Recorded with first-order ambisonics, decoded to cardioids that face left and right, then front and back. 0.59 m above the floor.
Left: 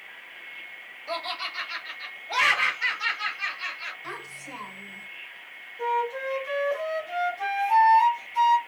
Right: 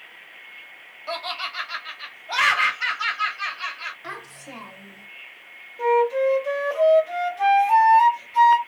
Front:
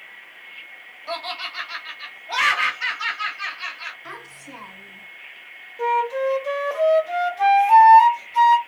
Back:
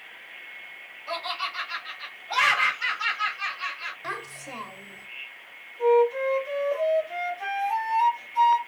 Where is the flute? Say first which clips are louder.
Right 8 dB, back 1 dB; 30° right, 0.9 m.